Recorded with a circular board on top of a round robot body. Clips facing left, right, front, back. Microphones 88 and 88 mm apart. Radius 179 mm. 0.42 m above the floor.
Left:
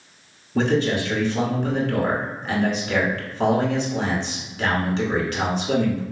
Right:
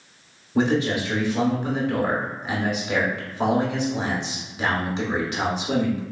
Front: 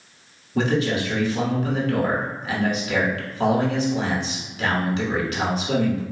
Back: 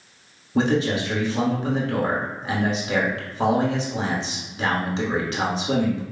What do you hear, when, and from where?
0.6 s a man speaking: 155° right, 1.4 m